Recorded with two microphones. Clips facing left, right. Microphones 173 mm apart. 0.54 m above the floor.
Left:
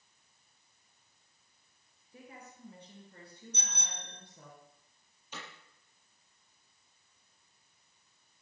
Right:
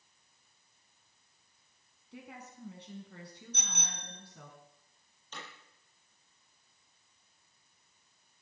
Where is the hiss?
I don't hear a hiss.